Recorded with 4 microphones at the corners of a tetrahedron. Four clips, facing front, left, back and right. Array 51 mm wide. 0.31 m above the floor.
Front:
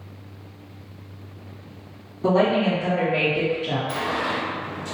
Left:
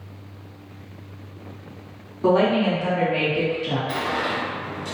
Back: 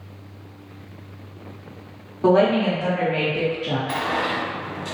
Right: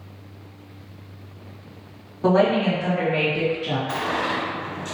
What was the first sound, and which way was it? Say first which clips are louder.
A woman speaking: even, back 2 dB; 155° right.